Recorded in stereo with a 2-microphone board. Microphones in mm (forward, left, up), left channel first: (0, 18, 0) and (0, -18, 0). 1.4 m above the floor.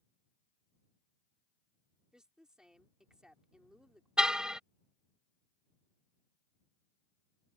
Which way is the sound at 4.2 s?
20° right (ahead or behind).